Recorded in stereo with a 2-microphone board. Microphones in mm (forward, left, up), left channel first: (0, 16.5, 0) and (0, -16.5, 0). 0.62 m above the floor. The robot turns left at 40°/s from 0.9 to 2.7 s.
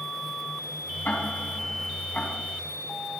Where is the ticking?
80° left, 4 m; by 2.3 s 30° left (ahead or behind), 4 m.